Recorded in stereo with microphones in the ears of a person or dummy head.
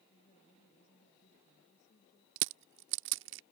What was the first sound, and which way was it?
A woman speaking, 45° left (ahead or behind).